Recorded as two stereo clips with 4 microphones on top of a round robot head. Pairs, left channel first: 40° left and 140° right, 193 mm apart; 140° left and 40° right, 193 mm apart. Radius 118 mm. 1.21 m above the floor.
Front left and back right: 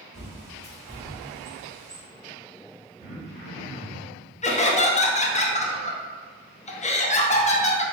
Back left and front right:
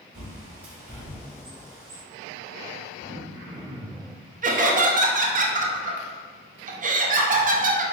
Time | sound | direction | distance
0.1 | a bird | 45° right | 1.2 m
3.0 | throat clearing | 25° right | 1.8 m
4.4 | laughter | 5° right | 0.7 m